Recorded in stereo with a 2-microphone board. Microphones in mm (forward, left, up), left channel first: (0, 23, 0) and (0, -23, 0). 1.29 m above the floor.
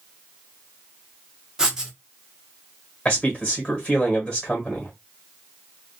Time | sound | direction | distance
1.6 | writing | 15° right (ahead or behind) | 0.8 m
3.0 | a man speaking | 15° left (ahead or behind) | 1.4 m